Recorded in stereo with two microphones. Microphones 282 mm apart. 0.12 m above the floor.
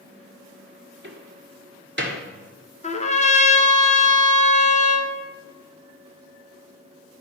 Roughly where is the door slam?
Right.